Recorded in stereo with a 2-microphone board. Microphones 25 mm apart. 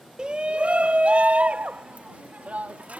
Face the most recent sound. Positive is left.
turn(degrees=-70)  # may be behind; listen again after turning